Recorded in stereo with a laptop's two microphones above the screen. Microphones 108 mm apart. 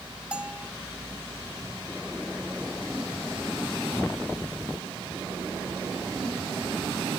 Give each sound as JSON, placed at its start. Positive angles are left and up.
{"t": 0.3, "sound": "a bell", "side_deg": -10}